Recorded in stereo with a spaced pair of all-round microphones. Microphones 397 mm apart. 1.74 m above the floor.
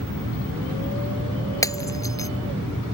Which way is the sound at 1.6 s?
10° left (ahead or behind).